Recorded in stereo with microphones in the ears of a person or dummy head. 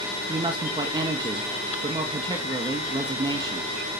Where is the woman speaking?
20° right (ahead or behind), 1.7 m.